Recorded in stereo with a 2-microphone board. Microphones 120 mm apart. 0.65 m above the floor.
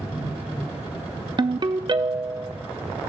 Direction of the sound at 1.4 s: 40° right (ahead or behind).